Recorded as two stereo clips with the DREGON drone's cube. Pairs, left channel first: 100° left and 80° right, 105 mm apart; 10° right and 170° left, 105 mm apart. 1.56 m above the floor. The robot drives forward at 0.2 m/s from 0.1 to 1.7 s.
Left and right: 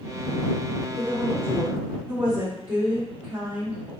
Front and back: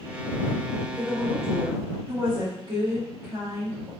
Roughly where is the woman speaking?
Behind right.